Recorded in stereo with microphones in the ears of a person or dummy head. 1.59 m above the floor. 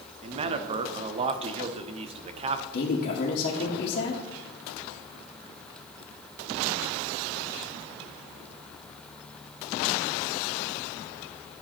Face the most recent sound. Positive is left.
turn(degrees=55)  # may be behind; listen again after turning